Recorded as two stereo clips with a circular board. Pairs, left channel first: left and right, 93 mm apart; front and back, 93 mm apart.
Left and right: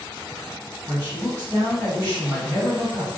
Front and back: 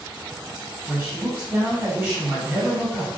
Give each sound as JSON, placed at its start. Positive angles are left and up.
{"t": 0.9, "sound": "a man speaking", "azimuth_deg": -115, "distance_m": 1.8}